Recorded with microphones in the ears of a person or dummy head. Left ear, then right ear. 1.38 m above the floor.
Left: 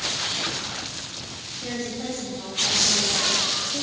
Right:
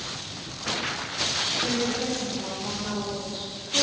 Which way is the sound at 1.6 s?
15° left (ahead or behind).